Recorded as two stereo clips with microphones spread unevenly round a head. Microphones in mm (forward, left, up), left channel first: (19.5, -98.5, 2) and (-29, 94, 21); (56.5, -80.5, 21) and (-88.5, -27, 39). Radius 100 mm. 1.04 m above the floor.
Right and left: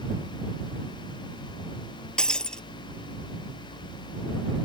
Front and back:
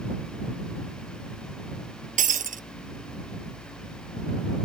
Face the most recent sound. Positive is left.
turn(degrees=-160)